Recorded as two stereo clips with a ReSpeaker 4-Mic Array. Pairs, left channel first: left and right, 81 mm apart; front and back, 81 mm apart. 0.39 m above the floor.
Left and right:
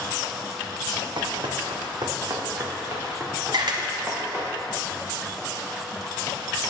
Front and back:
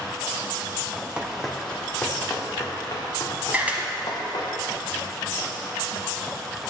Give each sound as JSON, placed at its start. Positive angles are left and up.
{"t": 1.2, "sound": "running footsteps", "azimuth_deg": -100, "distance_m": 1.1}
{"t": 3.5, "sound": "a camera shutter", "azimuth_deg": -110, "distance_m": 1.0}